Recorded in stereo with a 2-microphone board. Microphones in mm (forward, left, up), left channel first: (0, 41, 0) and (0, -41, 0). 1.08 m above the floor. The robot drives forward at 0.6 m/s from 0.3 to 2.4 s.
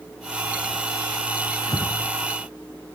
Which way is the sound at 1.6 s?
55° left (ahead or behind).